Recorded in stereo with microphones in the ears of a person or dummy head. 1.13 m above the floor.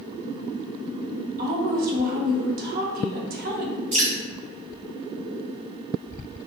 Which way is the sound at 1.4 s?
40° right (ahead or behind).